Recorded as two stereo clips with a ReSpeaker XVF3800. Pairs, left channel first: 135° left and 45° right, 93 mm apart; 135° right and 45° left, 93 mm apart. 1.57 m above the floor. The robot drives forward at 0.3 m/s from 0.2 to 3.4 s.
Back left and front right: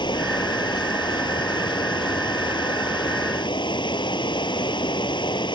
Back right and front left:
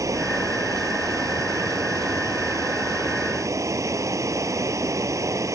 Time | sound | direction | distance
0.0 | running water | 100° left | ?